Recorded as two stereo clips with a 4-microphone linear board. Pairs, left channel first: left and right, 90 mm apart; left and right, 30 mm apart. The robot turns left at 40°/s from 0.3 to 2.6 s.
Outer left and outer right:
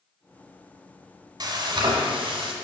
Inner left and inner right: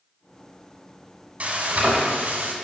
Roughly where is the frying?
Ahead right.